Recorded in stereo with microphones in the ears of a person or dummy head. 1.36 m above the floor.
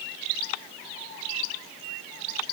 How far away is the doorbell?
I don't hear a doorbell.